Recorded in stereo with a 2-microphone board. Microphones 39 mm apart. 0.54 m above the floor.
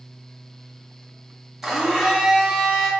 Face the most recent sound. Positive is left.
turn(degrees=-5)  # may be behind; listen again after turning